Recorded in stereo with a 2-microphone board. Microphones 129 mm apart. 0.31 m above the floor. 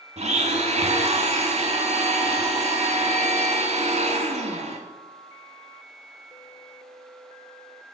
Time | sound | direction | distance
0.2 | a blender | 65° right (ahead or behind) | 1.3 m